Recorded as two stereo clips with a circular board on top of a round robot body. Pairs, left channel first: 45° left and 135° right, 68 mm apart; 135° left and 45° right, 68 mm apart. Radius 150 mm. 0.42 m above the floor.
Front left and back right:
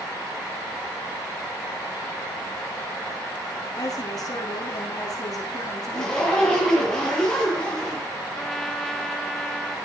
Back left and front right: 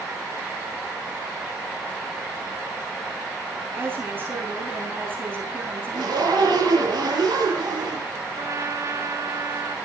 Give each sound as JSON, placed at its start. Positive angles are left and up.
{"t": 3.8, "sound": "a woman speaking", "azimuth_deg": 15, "distance_m": 5.0}
{"t": 5.9, "sound": "a zipper", "azimuth_deg": -35, "distance_m": 6.5}
{"t": 8.4, "sound": "a trumpet", "azimuth_deg": -40, "distance_m": 1.7}